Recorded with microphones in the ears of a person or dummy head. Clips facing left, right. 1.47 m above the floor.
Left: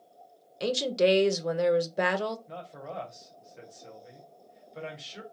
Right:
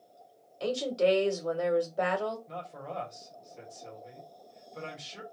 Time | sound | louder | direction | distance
0.6 | a woman speaking | left 2 dB | 25° left (ahead or behind) | 0.7 m
2.5 | a man speaking | right 1 dB | 5° left (ahead or behind) | 1.2 m